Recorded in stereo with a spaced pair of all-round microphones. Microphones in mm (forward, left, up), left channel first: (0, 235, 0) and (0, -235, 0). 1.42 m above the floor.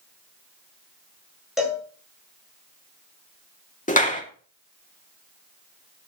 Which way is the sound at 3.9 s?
15° left (ahead or behind).